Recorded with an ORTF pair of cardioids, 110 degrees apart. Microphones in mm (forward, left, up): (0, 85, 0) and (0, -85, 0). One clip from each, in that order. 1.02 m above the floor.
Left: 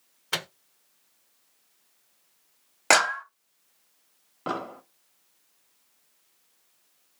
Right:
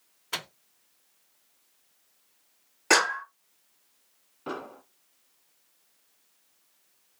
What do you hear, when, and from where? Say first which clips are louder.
0.3 s a microwave: left 4 dB; 25° left, 0.5 m
2.9 s a clap: left 2 dB; 60° left, 0.9 m
4.5 s an explosion: left 5 dB; 65° left, 0.9 m